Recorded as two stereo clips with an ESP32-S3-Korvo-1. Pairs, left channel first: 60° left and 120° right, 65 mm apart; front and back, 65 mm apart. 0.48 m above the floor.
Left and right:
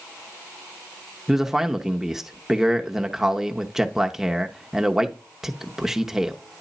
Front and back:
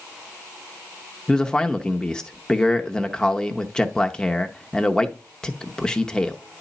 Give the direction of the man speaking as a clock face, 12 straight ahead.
2 o'clock.